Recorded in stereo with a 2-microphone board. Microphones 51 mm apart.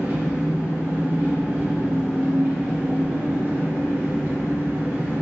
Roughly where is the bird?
I don't hear a bird.